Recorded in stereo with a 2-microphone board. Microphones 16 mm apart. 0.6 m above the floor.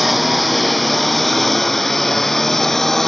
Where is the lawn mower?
Centre (ahead or behind); by 3.1 s 25° left (ahead or behind).